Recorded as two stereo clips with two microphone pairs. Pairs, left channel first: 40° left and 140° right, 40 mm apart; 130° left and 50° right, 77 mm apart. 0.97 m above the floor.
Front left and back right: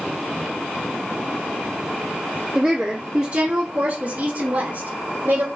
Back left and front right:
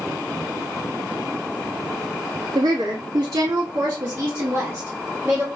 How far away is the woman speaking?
About 1.6 m.